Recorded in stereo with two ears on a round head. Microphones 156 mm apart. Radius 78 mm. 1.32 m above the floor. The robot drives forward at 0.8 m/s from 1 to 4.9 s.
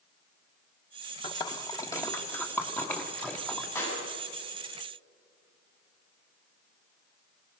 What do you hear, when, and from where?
1.2 s a splash: 30° left (ahead or behind), 0.9 m; by 3.6 s 10° left (ahead or behind), 2.5 m
3.8 s a clap: 15° left (ahead or behind), 8.5 m